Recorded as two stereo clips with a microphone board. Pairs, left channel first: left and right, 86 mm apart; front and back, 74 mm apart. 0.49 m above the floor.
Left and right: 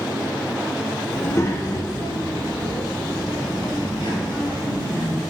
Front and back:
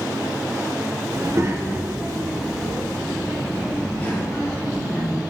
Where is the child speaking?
155° left, 0.8 m; by 5.2 s 60° left, 2.5 m.